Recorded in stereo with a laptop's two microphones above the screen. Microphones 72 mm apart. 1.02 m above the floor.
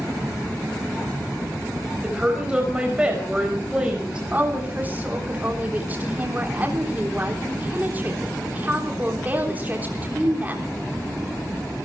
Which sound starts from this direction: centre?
A woman speaking, at 2.0 s.